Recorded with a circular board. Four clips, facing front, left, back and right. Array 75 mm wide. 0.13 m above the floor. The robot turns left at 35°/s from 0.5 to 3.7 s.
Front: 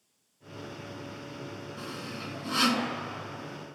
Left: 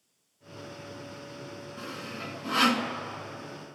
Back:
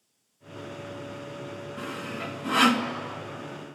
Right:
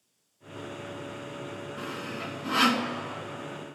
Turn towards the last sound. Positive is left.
turn(degrees=145)